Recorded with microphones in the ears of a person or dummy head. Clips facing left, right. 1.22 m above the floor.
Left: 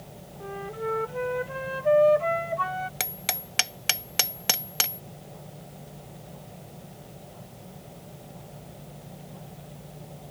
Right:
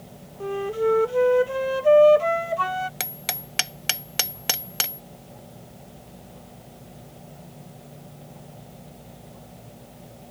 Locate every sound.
0.4 s a flute: 50° right (ahead or behind)
3.0 s hammering: centre (ahead or behind)